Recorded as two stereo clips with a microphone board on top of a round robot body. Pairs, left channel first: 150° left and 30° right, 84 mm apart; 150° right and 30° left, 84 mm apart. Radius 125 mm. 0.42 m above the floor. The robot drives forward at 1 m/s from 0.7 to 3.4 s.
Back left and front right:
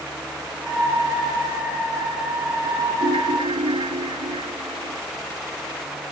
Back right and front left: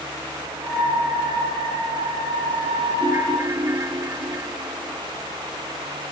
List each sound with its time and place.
3.0 s a ringtone: 30° right